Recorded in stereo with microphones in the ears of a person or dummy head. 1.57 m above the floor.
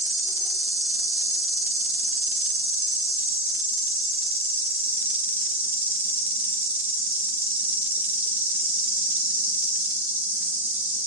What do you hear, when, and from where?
0.0 s an insect: 5° right (ahead or behind), 2.5 m